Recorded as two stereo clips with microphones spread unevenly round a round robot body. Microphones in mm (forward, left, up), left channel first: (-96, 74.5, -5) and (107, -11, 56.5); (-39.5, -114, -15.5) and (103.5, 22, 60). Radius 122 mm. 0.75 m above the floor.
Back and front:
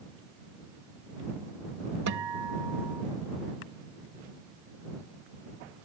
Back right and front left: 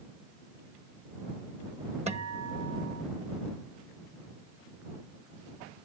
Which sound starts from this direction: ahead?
A guitar, at 2.1 s.